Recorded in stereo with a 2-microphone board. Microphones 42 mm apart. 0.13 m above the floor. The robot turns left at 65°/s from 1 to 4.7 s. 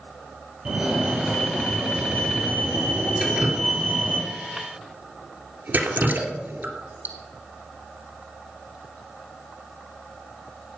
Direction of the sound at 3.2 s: 25° right (ahead or behind).